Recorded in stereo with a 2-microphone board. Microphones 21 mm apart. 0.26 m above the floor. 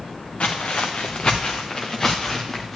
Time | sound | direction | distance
0.4 | footsteps | 70° left (ahead or behind) | 1.3 m